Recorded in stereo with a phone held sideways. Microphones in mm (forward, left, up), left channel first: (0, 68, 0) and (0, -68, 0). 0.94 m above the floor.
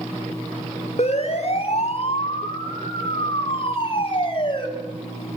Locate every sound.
1.0 s a siren: 55° left (ahead or behind), 4 m; by 4.7 s 35° left (ahead or behind), 7 m